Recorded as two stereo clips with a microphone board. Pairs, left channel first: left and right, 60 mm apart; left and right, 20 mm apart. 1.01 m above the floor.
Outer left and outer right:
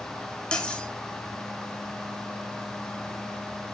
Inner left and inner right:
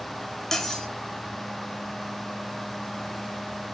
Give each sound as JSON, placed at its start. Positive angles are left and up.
{"t": 0.5, "sound": "cutlery clinking", "side_deg": 15, "distance_m": 1.5}